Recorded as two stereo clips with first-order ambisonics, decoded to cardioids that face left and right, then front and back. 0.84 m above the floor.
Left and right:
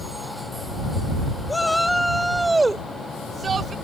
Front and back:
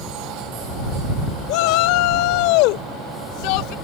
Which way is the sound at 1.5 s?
10° left.